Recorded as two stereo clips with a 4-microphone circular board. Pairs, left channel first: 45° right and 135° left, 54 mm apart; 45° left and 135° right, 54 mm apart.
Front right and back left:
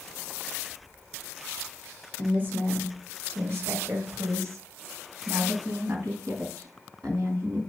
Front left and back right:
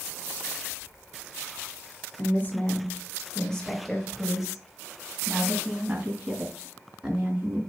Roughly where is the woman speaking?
Left.